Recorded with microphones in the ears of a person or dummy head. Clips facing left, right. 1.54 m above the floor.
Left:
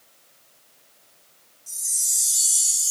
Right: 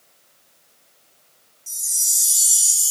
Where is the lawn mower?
I don't hear a lawn mower.